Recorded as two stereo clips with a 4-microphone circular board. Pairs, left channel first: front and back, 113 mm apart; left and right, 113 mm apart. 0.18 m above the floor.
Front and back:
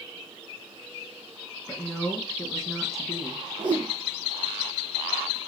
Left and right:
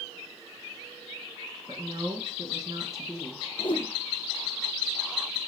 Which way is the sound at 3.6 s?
135° left.